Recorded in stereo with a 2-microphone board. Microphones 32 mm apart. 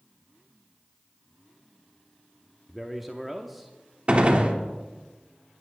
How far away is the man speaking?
About 0.8 m.